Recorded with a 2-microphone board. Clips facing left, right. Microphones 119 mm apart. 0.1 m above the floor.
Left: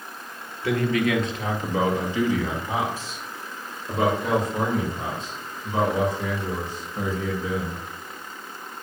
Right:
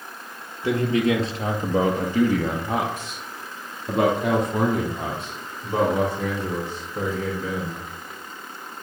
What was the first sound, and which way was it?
A man speaking, 20° right (ahead or behind).